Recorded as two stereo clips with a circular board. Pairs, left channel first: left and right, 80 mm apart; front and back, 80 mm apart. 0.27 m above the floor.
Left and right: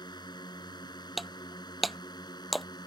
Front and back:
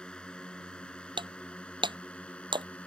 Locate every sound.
0.0 s a drone: 75° left
1.2 s breaking glass: straight behind